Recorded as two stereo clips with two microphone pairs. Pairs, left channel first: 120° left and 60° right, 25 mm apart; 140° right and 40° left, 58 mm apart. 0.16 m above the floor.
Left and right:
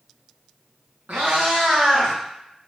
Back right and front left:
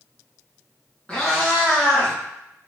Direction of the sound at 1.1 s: 60° right.